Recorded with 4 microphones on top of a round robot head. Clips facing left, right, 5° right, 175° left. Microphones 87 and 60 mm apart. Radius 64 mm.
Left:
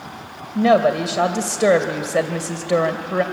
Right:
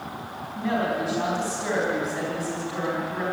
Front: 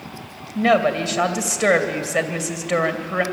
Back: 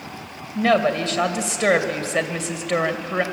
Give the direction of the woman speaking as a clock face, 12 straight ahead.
9 o'clock.